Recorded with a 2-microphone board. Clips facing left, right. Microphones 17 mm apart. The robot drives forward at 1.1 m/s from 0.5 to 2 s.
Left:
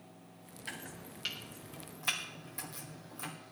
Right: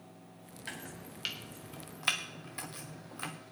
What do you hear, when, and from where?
0.7 s chopping: 15° right (ahead or behind), 3.5 m; by 3.3 s 30° right (ahead or behind), 2.0 m